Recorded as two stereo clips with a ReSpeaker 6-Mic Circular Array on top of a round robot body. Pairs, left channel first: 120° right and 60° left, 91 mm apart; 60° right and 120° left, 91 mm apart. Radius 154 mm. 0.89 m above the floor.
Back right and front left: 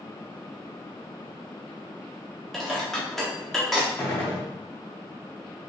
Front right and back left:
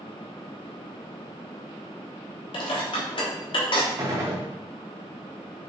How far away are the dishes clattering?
About 1.2 m.